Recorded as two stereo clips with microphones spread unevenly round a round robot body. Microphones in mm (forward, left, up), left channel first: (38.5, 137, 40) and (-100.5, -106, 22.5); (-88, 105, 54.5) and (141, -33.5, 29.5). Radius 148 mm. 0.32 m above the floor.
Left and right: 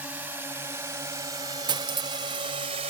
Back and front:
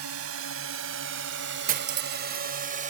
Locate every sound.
0.0 s a drone: 40° right; by 2.9 s 65° right
1.7 s cutlery clinking: 60° right